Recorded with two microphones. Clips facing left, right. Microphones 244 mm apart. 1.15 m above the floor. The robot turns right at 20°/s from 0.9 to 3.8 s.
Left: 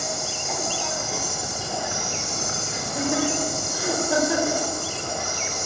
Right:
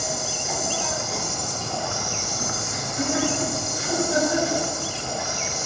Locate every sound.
0.0 s an insect: straight ahead, 6 m; by 5.7 s 55° left, 6 m
2.7 s laughter: 70° left (ahead or behind), 5 m; by 4.6 s 85° left, 5 m